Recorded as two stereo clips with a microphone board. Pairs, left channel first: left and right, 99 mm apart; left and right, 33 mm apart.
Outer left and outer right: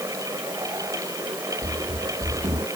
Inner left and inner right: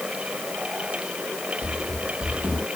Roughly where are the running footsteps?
Right.